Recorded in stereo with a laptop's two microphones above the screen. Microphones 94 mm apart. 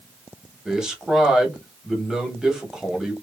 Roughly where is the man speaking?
Centre.